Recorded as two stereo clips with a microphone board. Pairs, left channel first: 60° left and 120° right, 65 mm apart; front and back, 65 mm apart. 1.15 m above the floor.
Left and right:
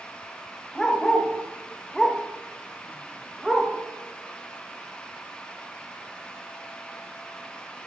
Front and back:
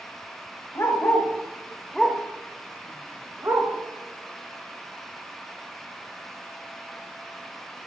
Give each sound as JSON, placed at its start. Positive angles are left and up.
{"t": 0.8, "sound": "a dog barking", "azimuth_deg": -15, "distance_m": 1.1}